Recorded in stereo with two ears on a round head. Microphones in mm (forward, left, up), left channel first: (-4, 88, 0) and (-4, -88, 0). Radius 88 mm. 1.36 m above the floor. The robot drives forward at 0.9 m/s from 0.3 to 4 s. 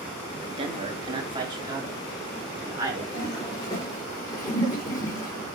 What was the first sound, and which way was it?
A man speaking, 30° right (ahead or behind).